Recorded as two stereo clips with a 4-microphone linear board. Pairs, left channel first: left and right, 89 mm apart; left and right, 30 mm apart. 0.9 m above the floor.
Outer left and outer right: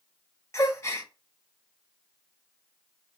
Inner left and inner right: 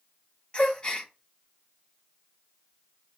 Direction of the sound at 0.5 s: 30° left (ahead or behind).